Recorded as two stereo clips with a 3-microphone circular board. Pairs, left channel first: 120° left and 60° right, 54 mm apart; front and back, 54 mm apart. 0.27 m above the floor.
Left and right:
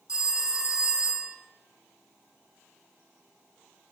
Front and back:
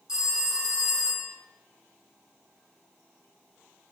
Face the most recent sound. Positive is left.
turn(degrees=-115)